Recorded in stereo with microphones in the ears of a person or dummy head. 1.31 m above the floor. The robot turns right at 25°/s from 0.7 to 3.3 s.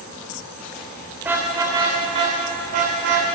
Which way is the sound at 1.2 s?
15° right (ahead or behind).